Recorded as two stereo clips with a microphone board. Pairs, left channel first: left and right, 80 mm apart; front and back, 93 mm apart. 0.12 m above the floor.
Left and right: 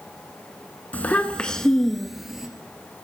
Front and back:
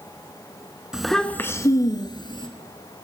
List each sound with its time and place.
0.9 s a child speaking: 110° left, 0.7 m; by 2.5 s 5° right, 1.2 m